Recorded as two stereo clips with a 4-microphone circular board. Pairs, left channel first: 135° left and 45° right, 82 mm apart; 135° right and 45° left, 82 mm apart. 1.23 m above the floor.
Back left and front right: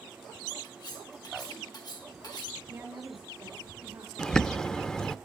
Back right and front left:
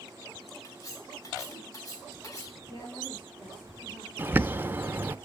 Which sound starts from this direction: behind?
Cutlery clinking, at 0.6 s.